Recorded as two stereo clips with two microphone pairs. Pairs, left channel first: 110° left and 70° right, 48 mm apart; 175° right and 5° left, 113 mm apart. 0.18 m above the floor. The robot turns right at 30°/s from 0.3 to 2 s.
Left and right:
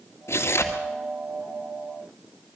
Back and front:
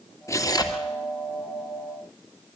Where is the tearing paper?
125° left, 2 m; by 0.8 s 140° left, 2 m.